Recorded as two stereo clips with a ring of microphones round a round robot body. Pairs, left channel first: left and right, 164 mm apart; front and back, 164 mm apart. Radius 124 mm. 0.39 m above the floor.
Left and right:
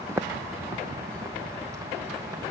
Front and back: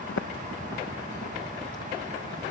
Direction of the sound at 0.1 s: 15° right.